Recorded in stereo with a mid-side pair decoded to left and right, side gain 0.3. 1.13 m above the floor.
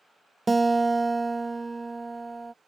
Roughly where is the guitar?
Ahead right.